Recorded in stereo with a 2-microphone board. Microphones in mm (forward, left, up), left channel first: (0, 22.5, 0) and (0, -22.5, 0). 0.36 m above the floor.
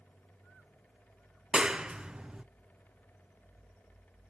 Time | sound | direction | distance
1.5 | a clap | 20° right (ahead or behind) | 0.6 m